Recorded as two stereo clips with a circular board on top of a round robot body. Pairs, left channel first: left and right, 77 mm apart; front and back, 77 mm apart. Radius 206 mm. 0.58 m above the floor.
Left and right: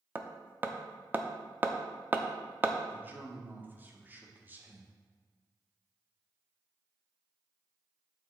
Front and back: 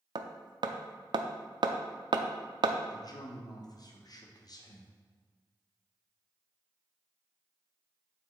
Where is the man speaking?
25° right, 1.3 m.